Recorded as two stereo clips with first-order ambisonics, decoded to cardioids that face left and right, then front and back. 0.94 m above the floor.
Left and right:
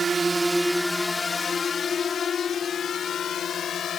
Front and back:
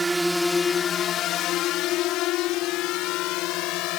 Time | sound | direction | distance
0.0 | a drone | 130° right | ?